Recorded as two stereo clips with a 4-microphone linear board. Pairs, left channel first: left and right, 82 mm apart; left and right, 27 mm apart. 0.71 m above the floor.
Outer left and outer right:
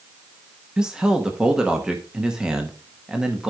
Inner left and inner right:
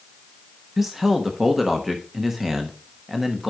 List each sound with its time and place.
0.8 s a man speaking: 10° right (ahead or behind), 1.1 m